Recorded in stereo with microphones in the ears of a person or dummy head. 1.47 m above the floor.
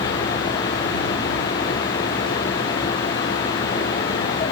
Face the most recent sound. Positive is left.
No sound to turn to.